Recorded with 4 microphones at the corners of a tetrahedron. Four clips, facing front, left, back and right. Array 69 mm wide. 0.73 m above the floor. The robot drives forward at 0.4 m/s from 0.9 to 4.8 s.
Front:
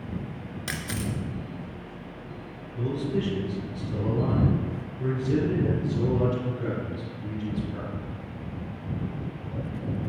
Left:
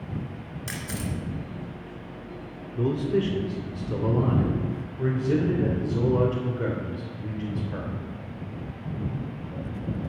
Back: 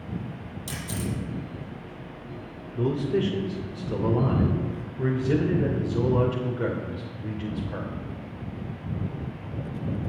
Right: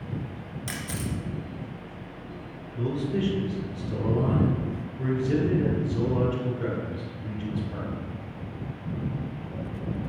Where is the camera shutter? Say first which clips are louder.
Even, front 1 dB; 10° left, 2.5 m.